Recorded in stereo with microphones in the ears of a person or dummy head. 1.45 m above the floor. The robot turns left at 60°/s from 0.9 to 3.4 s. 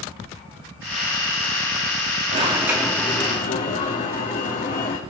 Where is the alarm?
150° right, 2.5 m; by 5.0 s 145° left, 2.5 m.